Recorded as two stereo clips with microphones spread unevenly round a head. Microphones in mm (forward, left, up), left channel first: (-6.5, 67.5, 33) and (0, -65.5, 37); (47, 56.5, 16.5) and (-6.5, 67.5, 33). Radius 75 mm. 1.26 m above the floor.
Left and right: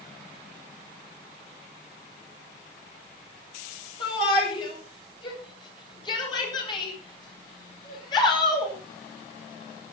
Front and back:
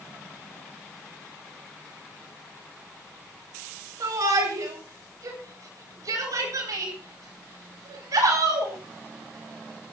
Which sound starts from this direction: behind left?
A shout, at 4.0 s.